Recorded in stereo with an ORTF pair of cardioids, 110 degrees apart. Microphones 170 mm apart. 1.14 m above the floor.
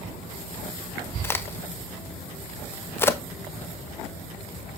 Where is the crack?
15° left, 1.0 m.